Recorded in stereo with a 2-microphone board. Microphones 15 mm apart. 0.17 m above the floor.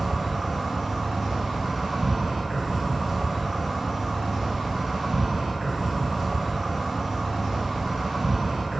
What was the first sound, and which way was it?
An insect, 50° right (ahead or behind).